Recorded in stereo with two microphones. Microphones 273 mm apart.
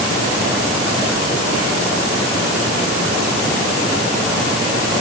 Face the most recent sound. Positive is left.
No sound to turn to.